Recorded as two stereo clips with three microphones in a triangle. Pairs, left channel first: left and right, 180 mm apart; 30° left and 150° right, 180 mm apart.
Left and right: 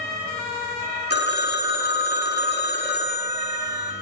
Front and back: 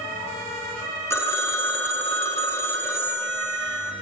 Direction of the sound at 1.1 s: 105° left.